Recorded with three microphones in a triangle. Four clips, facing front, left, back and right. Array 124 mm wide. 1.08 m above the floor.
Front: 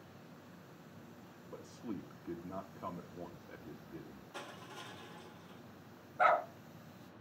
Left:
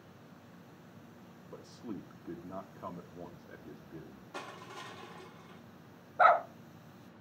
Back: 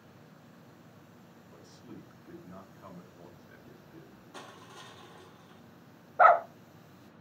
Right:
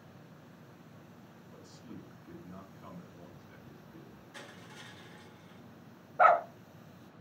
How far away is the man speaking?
About 2 m.